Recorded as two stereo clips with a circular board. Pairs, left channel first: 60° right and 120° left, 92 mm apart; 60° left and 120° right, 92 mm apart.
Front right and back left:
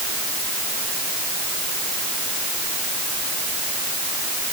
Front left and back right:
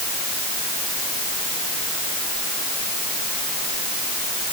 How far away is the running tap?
I don't hear a running tap.